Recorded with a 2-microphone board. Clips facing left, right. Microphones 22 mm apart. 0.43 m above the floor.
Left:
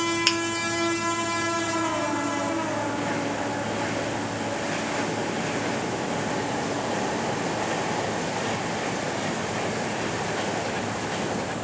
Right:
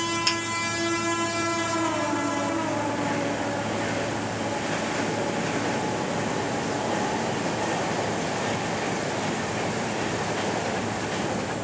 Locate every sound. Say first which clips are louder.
0.3 s a finger snap: left 2 dB; 30° left (ahead or behind), 0.9 m